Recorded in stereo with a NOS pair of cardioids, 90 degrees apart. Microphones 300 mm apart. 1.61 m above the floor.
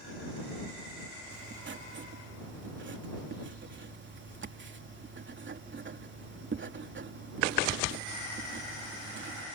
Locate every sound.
1.3 s writing: 40° right